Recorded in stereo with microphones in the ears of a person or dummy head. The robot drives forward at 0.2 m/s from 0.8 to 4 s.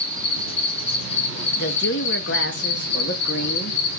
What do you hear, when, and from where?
0.0 s an insect: 30° left (ahead or behind), 0.8 m; by 4.0 s 60° left (ahead or behind), 0.5 m
1.6 s a woman speaking: 55° left (ahead or behind), 0.6 m; by 3.8 s 45° left (ahead or behind), 0.7 m